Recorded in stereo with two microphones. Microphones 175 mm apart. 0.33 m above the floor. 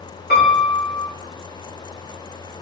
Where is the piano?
70° left (ahead or behind), 3.5 m.